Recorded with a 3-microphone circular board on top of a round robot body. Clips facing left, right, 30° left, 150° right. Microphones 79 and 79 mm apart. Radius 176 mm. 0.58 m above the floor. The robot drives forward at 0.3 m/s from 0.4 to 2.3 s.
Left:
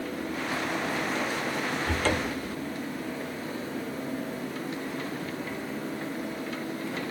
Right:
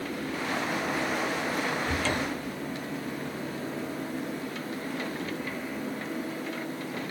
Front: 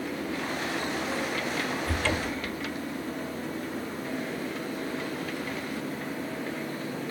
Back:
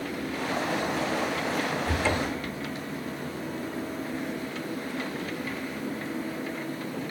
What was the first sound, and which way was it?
A cupboard door, 135° left.